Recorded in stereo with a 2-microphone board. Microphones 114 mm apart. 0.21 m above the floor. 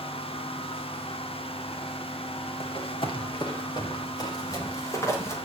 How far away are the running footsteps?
About 6 m.